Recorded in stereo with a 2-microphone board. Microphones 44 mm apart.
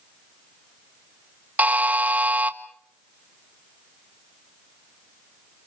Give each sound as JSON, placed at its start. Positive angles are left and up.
{"t": 1.6, "sound": "a buzzer", "side_deg": -35, "distance_m": 1.5}